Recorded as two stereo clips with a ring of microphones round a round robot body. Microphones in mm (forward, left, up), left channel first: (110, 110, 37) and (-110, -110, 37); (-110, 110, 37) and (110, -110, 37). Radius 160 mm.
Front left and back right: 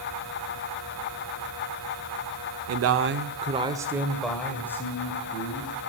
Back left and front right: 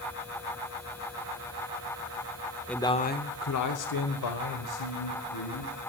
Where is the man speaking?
135° right, 0.9 m; by 5.7 s 120° left, 3 m.